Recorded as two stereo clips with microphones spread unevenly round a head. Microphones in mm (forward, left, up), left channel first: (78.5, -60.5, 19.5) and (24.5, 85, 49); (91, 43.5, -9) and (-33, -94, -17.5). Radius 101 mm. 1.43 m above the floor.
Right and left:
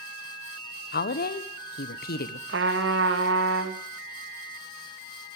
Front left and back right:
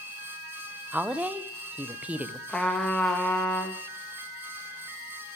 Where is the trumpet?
135° left, 1.2 m.